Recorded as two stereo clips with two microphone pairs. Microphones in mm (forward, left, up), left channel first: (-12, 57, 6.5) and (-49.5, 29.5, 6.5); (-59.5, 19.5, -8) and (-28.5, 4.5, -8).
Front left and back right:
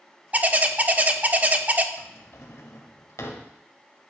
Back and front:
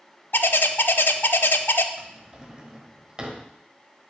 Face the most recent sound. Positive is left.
turn(degrees=40)